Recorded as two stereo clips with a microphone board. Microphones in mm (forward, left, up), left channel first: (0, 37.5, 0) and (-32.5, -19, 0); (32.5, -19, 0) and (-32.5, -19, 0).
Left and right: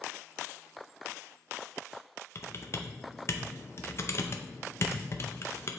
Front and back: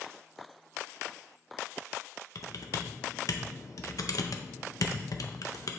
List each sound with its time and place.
2.4 s typing on a keyboard: 20° left, 0.6 m